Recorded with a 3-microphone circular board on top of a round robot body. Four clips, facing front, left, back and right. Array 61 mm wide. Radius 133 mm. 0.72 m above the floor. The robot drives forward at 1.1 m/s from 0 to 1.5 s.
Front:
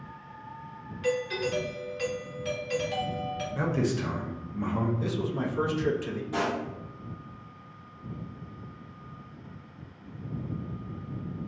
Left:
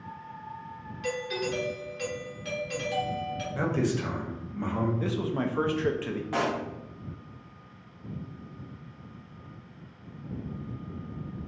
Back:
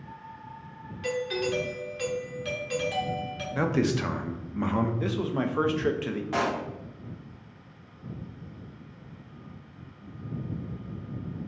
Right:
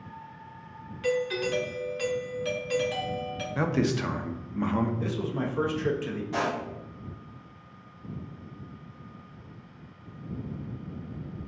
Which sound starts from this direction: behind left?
A pop, at 6.3 s.